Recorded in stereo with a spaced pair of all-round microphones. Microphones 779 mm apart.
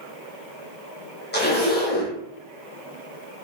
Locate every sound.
1.3 s a zipper: 15° left (ahead or behind), 0.6 m